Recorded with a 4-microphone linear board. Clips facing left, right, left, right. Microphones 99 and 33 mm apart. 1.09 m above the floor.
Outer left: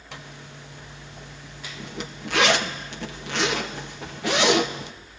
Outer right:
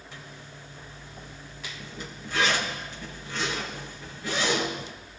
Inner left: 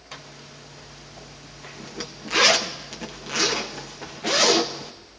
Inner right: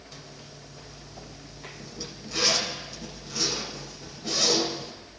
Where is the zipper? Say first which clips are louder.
Outer left 7 dB, inner left 7 dB; 70° left (ahead or behind), 0.7 m.